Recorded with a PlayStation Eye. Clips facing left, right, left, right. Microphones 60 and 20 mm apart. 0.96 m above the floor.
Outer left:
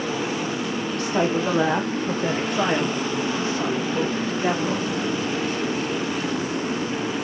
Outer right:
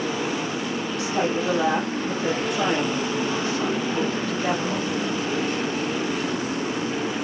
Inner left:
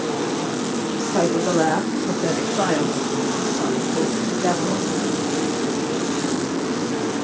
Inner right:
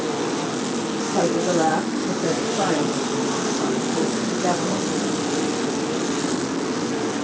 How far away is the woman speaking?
About 1.2 m.